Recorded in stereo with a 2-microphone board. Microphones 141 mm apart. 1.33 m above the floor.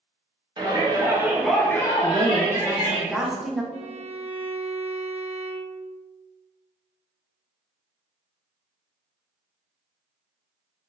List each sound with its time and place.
0.6 s a shout: 35° right (ahead or behind), 0.9 m; by 3.0 s 60° left (ahead or behind), 0.9 m
2.0 s a woman speaking: centre (ahead or behind), 0.7 m
3.7 s a violin: 50° right (ahead or behind), 1.1 m